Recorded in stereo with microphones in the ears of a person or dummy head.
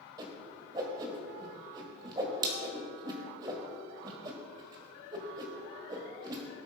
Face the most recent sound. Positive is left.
turn(degrees=-25)  # may be behind; listen again after turning